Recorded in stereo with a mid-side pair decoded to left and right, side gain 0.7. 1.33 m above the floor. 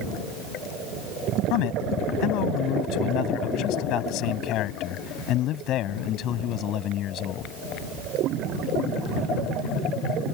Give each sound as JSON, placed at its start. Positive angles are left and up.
{"t": 1.5, "sound": "a man speaking", "azimuth_deg": 65}